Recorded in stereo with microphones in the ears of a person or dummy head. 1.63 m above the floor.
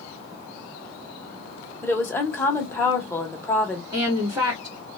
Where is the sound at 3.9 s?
25° right (ahead or behind), 1.1 m.